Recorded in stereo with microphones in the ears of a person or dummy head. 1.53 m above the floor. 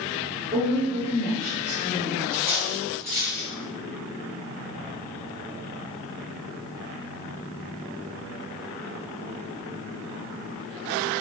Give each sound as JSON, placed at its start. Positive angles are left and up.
{"t": 0.5, "sound": "a woman speaking", "side_deg": -35, "distance_m": 1.2}
{"t": 2.3, "sound": "cutlery clinking", "side_deg": -15, "distance_m": 1.4}